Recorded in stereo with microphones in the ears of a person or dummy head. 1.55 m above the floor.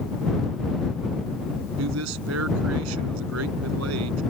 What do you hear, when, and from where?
1.8 s a man speaking: 75° right (ahead or behind)